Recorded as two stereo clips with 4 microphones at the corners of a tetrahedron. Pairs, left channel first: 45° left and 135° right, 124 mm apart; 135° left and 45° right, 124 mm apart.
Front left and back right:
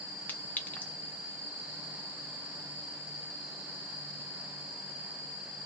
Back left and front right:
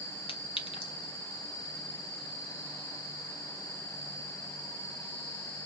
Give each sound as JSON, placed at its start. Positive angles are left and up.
{"t": 0.3, "sound": "a clink", "azimuth_deg": 120, "distance_m": 0.7}